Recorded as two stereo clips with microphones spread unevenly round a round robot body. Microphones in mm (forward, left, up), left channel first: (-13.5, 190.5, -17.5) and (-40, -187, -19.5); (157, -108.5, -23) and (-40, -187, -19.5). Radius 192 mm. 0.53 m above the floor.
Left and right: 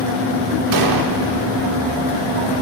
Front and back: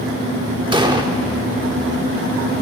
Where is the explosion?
95° right, 1.2 m.